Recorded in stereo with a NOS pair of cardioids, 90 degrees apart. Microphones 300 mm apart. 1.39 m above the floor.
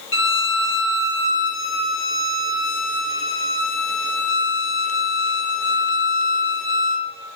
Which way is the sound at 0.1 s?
45° left.